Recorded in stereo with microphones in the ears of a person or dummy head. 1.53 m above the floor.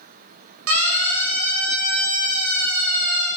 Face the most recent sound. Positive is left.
turn(degrees=-85)